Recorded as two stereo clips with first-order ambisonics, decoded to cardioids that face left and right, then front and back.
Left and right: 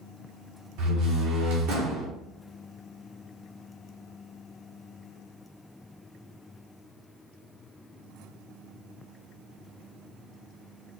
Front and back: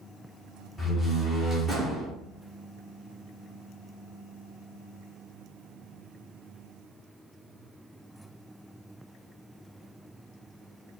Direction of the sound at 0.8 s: 75° right.